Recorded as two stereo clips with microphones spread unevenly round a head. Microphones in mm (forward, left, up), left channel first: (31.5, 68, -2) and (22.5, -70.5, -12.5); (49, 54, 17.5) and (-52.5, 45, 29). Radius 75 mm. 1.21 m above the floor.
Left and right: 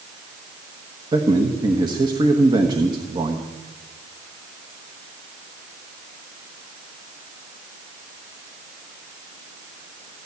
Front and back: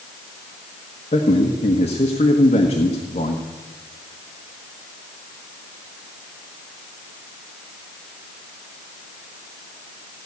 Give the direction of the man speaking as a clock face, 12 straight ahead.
1 o'clock.